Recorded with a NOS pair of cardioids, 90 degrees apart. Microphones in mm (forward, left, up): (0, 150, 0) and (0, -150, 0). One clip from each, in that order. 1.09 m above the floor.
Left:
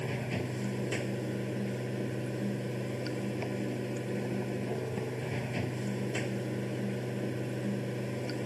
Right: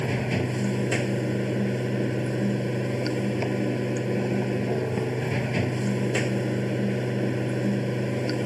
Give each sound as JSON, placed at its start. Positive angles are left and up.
{"t": 0.0, "sound": "running water", "azimuth_deg": -60}